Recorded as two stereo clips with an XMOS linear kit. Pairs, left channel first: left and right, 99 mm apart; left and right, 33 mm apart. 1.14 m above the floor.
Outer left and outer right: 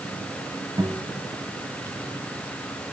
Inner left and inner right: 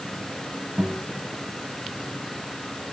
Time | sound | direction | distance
0.8 | a guitar | 35° right (ahead or behind) | 3 m